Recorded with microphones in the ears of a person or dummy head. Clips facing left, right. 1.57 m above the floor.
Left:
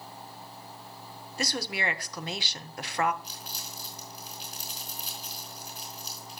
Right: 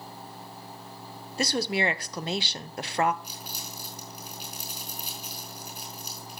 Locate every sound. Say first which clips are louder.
1.4 s a woman speaking: right 6 dB; 30° right (ahead or behind), 0.8 m
3.2 s crumpling: right 2 dB; 25° right (ahead or behind), 5.5 m